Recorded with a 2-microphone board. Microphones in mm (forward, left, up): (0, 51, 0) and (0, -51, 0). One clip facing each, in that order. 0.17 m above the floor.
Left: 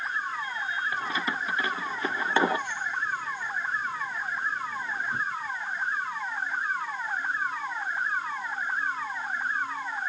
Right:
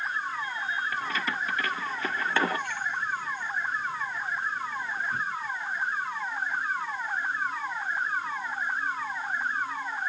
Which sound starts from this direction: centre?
Keys jangling, at 0.9 s.